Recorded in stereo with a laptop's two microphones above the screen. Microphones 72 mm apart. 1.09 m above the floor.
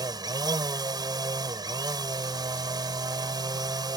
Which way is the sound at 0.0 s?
70° right (ahead or behind).